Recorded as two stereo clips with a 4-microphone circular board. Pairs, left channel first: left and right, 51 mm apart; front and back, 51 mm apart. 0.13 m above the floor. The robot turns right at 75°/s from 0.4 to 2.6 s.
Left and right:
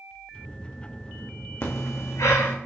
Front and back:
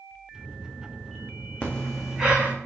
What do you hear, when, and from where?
1.6 s breathing: 60° left, 2 m; by 2.5 s 130° left, 2 m